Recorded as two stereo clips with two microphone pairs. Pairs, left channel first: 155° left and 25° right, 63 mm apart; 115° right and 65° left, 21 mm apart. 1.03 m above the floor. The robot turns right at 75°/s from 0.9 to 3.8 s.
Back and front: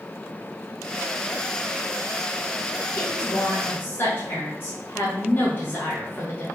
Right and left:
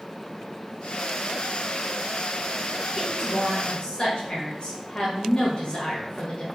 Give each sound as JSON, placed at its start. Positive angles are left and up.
{"t": 2.9, "sound": "a woman speaking", "azimuth_deg": 145, "distance_m": 1.3}